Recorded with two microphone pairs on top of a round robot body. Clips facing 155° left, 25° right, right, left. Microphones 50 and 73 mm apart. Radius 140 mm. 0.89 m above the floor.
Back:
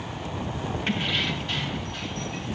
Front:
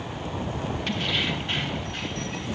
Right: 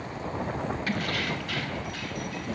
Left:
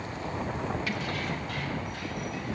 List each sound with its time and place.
0.9 s keys jangling: 145° right, 0.8 m; by 2.5 s 70° right, 2.5 m